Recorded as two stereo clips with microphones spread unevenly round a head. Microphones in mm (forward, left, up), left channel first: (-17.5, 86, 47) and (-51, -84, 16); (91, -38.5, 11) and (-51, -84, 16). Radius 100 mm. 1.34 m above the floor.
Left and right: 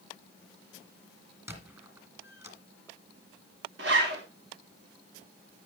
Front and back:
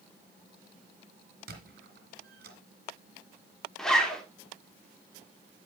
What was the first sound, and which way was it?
A squeak, straight behind.